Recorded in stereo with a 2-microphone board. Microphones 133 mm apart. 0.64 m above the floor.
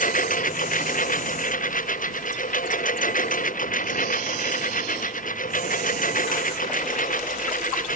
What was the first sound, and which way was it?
A lawn mower, 80° left.